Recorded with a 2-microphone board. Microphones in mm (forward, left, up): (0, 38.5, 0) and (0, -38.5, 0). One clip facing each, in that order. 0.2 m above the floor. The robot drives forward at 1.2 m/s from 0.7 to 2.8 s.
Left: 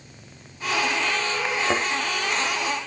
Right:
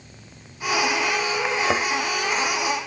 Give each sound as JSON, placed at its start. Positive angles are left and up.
{"t": 1.6, "sound": "a thud", "side_deg": -5, "distance_m": 2.0}